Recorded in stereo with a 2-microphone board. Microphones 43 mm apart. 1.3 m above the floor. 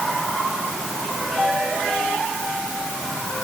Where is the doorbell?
I don't hear a doorbell.